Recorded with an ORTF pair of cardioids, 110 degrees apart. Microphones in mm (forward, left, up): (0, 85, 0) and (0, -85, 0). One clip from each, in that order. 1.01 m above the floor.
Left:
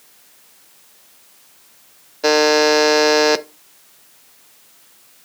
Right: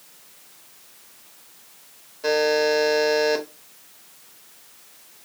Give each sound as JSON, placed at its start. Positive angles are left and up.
{"t": 2.2, "sound": "a buzzer", "azimuth_deg": 55, "distance_m": 0.5}